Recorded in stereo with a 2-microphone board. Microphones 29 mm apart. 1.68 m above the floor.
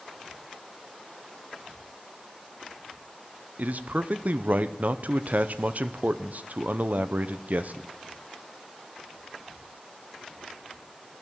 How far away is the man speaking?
About 0.7 m.